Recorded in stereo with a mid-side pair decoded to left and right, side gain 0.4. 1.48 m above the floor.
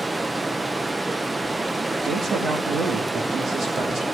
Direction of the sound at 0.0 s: 25° right.